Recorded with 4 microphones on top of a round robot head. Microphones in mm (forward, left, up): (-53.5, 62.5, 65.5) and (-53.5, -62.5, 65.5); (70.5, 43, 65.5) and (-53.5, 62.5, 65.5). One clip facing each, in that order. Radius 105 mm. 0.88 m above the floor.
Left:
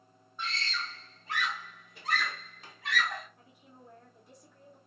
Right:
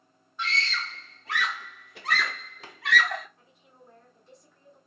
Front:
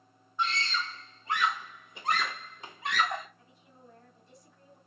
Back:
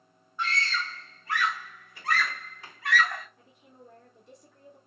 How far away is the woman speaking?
About 2.5 m.